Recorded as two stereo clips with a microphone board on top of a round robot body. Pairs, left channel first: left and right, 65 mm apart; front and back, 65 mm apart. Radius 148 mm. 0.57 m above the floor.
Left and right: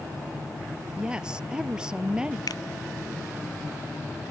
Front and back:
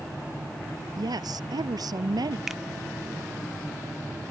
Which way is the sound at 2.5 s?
95° left.